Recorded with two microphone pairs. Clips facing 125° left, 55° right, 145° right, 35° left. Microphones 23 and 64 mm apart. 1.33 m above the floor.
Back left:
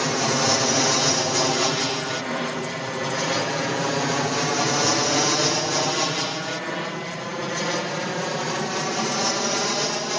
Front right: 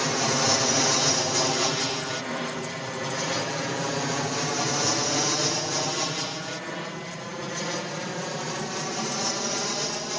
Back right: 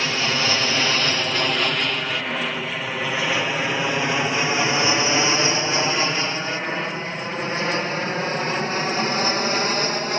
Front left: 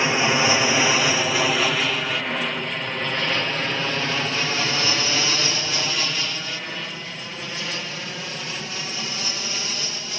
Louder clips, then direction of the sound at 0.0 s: Back left 2 dB, front left 3 dB; 55° left.